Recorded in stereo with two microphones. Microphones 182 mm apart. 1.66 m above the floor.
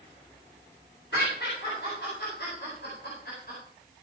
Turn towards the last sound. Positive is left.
turn(degrees=60)  # may be behind; listen again after turning